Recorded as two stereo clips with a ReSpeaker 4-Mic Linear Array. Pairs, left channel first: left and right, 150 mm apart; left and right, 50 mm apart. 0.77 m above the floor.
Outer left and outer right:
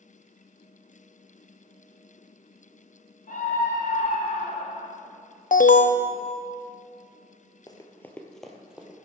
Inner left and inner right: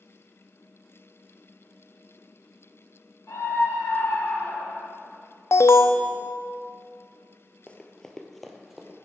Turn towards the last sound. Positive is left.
turn(degrees=-10)  # may be behind; listen again after turning